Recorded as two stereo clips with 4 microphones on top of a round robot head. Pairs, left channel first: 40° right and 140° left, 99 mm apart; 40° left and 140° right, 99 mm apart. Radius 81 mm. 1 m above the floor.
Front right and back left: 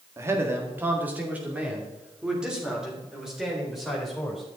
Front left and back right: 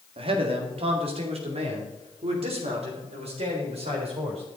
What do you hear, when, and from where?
0.2 s a man speaking: 160° right, 1.8 m; by 4.4 s 135° right, 4 m